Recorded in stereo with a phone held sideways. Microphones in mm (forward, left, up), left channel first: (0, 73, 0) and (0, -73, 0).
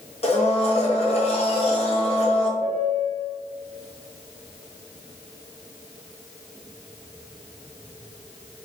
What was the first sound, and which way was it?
A blender, 45° left (ahead or behind).